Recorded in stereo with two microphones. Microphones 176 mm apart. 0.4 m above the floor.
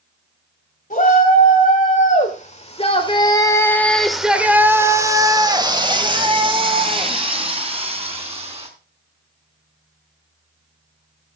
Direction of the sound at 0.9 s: 45° left (ahead or behind).